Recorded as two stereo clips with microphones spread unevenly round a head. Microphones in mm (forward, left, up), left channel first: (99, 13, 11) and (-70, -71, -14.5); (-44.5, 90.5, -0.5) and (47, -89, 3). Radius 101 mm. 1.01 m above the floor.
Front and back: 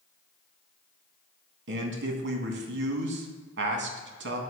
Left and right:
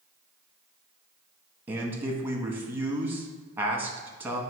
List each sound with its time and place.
1.7 s a man speaking: 145° right, 1.3 m